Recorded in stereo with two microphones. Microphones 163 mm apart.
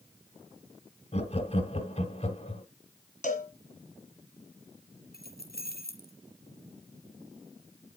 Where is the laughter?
40° left (ahead or behind), 1.6 m.